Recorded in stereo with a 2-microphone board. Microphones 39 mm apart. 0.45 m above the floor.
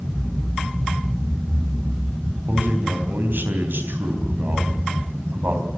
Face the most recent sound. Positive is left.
turn(degrees=-60)  # may be behind; listen again after turning